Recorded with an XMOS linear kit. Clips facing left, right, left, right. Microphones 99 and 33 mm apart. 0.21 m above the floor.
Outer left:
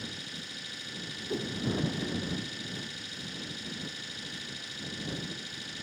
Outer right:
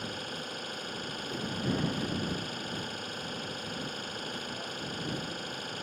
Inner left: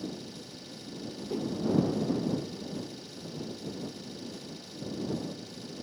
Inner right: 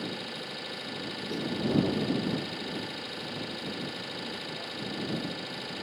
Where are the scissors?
No scissors in this recording.